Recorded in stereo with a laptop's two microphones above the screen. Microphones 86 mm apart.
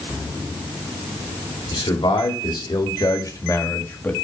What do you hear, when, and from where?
1.7 s a man speaking: 75° left (ahead or behind), 2.5 m; by 4.1 s 20° left (ahead or behind), 1.7 m